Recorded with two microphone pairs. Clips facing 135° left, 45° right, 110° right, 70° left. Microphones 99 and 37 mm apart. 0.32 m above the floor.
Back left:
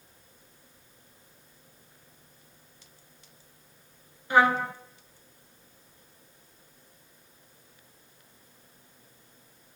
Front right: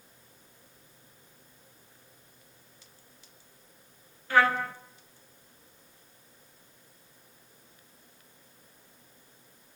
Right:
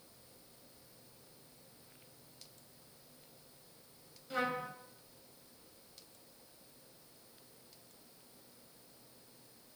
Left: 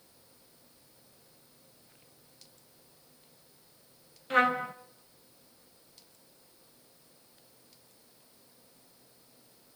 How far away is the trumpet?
About 0.8 m.